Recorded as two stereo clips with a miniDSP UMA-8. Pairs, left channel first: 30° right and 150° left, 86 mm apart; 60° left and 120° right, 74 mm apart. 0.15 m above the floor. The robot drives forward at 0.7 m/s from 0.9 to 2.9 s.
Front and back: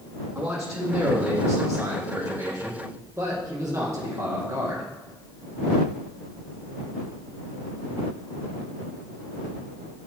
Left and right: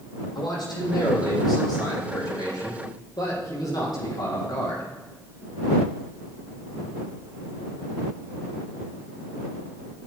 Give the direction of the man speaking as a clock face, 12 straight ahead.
10 o'clock.